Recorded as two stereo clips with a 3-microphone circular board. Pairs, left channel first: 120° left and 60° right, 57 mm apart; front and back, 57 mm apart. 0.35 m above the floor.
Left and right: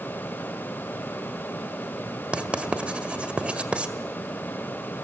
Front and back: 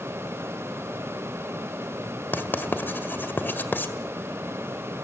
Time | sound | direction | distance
2.3 | writing | 5° right | 1.5 m